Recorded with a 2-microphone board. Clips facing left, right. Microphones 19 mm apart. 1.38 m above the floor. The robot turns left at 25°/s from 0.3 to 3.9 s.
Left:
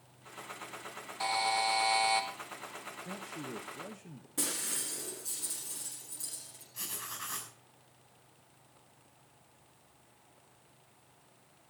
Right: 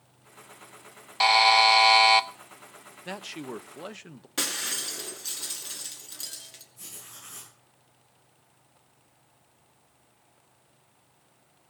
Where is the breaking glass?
55° right (ahead or behind), 2.5 m.